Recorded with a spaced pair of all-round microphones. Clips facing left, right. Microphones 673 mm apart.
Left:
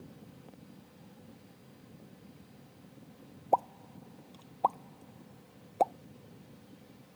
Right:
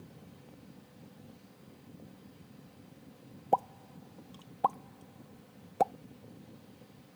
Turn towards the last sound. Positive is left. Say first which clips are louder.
# even
turn(degrees=-45)  # may be behind; listen again after turning